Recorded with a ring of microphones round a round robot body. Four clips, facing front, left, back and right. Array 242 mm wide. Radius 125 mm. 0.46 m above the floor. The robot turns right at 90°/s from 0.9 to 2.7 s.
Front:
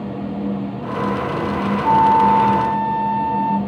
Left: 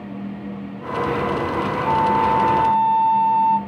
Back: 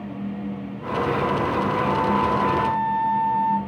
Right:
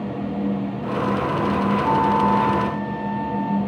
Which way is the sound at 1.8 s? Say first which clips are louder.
Left 2 dB, front 12 dB; 20° right.